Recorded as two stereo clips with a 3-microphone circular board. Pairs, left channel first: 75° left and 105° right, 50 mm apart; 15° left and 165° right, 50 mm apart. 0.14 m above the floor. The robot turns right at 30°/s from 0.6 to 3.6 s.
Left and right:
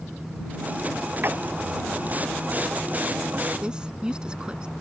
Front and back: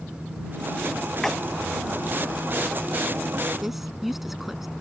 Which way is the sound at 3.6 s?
85° right.